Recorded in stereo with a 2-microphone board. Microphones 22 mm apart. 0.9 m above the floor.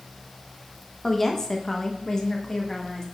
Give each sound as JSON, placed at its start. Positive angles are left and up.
{"t": 1.0, "sound": "a woman speaking", "side_deg": 15, "distance_m": 0.9}